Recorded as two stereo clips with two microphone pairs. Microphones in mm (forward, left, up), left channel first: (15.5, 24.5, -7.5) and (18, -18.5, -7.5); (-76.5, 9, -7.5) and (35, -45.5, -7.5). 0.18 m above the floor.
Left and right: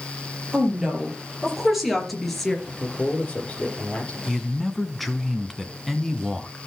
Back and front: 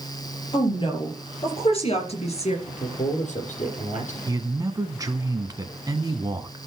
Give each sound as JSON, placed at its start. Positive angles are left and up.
{"t": 0.5, "sound": "a woman speaking", "azimuth_deg": -160, "distance_m": 5.0}
{"t": 2.7, "sound": "a man speaking", "azimuth_deg": 155, "distance_m": 4.0}
{"t": 4.3, "sound": "a man speaking", "azimuth_deg": 5, "distance_m": 1.2}